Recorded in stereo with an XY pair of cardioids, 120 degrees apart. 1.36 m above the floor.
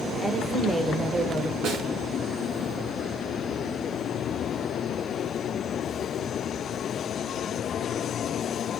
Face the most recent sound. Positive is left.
turn(degrees=-70)